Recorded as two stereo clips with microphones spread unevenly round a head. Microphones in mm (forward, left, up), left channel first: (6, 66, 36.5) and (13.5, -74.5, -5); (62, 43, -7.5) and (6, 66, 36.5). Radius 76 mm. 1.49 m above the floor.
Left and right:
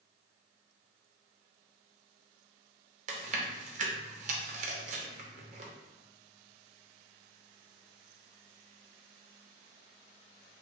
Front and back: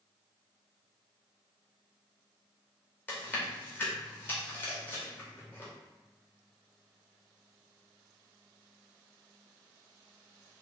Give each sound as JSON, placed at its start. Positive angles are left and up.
{"t": 3.1, "sound": "chewing", "azimuth_deg": -65, "distance_m": 0.6}